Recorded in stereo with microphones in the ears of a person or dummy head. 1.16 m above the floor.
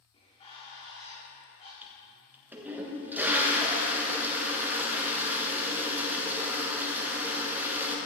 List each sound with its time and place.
0.1 s a bird: 30° left (ahead or behind), 2.5 m
1.8 s a toilet flushing: 10° right (ahead or behind), 1.4 m